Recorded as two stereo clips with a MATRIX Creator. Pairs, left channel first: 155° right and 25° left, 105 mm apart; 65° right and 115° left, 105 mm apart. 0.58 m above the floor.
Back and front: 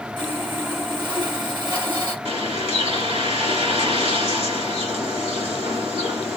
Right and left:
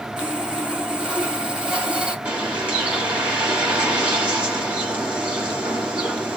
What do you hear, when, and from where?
0.2 s sawing: 35° left, 1.6 m
2.2 s a bird: 35° left, 2.5 m